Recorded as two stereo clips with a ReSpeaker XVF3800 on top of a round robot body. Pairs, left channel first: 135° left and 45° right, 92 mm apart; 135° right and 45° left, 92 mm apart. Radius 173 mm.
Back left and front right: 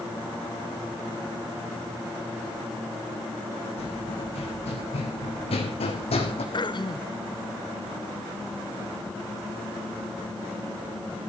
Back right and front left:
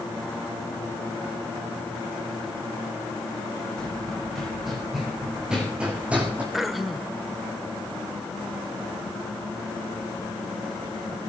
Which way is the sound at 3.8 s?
140° left.